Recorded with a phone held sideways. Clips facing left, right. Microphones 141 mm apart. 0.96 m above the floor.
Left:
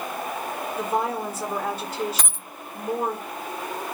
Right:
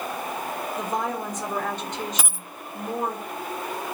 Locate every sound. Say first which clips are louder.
0.8 s a woman speaking: left 3 dB; 5° left (ahead or behind), 3.5 m
2.2 s a dropped coin: right 1 dB; 5° right (ahead or behind), 0.6 m